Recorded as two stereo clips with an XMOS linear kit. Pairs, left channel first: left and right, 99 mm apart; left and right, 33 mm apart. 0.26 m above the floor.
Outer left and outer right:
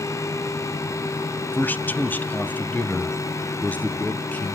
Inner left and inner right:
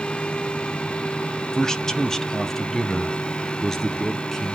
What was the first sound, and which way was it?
A man speaking, 20° left (ahead or behind).